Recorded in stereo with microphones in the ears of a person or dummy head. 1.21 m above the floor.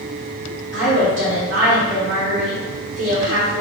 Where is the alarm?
I don't hear an alarm.